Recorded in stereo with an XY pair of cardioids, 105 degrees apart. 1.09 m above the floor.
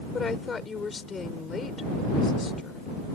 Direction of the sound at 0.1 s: 35° left.